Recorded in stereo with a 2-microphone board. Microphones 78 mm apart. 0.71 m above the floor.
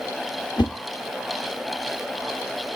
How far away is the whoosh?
About 0.9 m.